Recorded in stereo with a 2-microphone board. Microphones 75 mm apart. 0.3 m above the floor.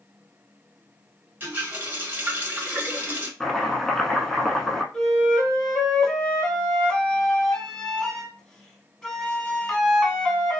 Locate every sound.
1.4 s a running tap: 25° right (ahead or behind), 1.1 m
3.4 s chopping: 5° left (ahead or behind), 0.6 m
4.9 s a flute: 10° left (ahead or behind), 0.6 m